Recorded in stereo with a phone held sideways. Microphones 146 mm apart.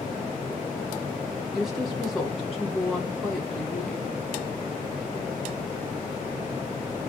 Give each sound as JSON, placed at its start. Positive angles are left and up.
{"t": 1.5, "sound": "a woman speaking", "side_deg": 0, "distance_m": 1.7}